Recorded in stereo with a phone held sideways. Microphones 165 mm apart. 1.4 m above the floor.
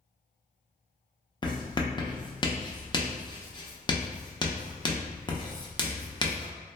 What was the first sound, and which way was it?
Writing, 30° left (ahead or behind).